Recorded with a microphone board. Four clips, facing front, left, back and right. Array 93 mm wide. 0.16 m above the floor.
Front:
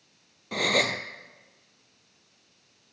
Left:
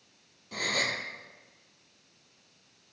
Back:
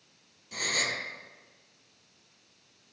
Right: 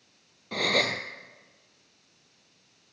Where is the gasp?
35° right, 0.6 m.